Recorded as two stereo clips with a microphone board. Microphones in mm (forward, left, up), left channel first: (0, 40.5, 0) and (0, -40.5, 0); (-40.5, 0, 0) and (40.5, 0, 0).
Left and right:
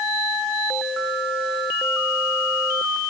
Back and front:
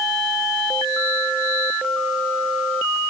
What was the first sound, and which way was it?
Only background noise.